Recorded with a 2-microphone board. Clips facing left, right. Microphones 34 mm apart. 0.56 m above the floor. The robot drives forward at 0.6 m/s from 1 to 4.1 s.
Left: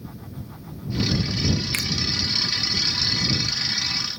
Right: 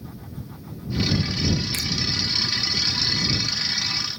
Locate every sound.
1.7 s a finger snap: 45° left (ahead or behind), 0.5 m